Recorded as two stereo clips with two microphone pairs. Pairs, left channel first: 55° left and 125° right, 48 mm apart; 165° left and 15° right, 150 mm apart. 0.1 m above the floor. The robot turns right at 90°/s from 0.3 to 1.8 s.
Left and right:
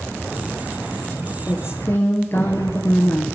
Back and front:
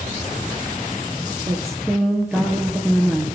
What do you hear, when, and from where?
1.5 s a woman speaking: 40° left, 1.8 m; by 3.2 s 70° left, 1.8 m